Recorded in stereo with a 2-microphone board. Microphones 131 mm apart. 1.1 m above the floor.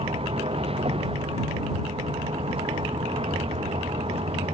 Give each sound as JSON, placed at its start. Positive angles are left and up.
{"t": 0.0, "sound": "a vehicle", "side_deg": -50}